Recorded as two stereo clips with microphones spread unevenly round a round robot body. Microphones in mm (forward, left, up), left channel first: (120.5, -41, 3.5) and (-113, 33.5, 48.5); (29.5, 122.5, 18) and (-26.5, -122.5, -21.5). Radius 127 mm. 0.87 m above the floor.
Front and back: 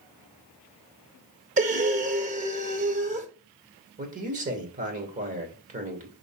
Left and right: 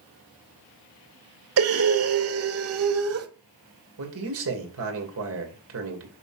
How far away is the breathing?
About 1.1 m.